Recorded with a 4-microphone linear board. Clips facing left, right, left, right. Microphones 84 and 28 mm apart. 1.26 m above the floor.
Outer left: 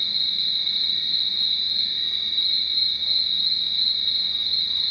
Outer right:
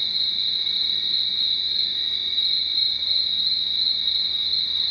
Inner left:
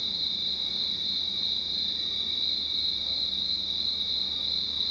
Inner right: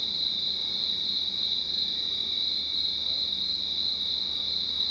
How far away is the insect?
About 1.5 m.